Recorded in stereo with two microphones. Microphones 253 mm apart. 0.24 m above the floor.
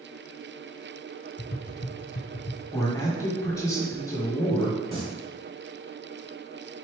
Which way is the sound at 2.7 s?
15° left (ahead or behind).